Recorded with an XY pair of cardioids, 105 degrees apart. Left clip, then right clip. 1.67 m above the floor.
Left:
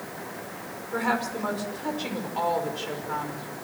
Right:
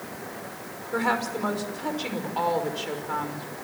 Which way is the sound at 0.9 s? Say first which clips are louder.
Right 1 dB; 15° right.